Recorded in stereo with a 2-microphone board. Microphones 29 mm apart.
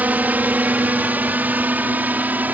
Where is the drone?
70° right (ahead or behind); by 2.5 s 75° right (ahead or behind).